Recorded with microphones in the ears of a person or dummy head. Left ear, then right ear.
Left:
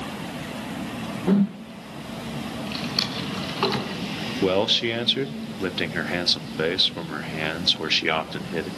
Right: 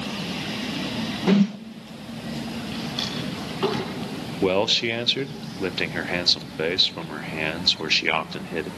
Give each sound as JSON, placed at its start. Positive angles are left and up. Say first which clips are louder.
{"t": 1.3, "sound": "a whoosh", "louder": "right 2 dB", "side_deg": -75, "distance_m": 0.8}
{"t": 2.7, "sound": "a drawer", "louder": "left 4 dB", "side_deg": 30, "distance_m": 5.0}
{"t": 4.4, "sound": "a man speaking", "louder": "even", "side_deg": -5, "distance_m": 0.7}